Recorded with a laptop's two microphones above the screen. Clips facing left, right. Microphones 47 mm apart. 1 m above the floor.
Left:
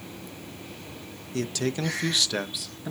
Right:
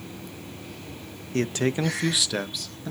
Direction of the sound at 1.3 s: 40° right (ahead or behind).